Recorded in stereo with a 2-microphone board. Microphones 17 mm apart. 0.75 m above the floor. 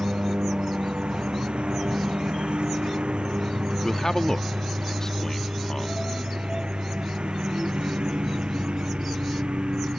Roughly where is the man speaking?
Left.